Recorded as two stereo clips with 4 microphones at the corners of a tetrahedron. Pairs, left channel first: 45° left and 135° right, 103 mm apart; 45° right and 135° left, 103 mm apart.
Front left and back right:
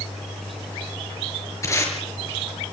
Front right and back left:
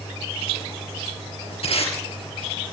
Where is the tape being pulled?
20° right, 5 m.